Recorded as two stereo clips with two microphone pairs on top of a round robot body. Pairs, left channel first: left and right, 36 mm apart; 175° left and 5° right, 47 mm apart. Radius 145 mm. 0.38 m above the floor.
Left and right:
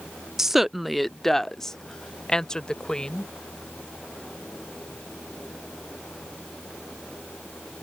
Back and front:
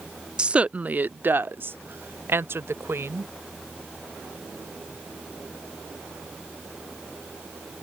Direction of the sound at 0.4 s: 25° right.